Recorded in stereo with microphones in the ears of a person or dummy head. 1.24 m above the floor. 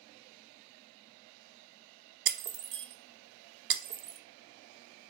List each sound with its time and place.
2.3 s breaking glass: 55° right (ahead or behind), 0.6 m